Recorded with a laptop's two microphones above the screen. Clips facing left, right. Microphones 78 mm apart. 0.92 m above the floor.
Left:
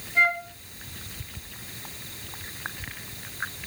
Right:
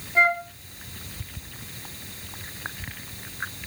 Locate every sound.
0.1 s a flute: 30° right (ahead or behind), 2.0 m